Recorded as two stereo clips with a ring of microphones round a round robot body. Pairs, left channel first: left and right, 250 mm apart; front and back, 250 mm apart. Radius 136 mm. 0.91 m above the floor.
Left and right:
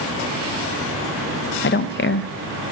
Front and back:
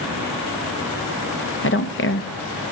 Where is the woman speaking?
45° left, 0.6 m.